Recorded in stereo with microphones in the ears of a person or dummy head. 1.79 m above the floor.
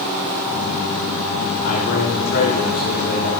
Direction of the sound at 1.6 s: 50° left (ahead or behind).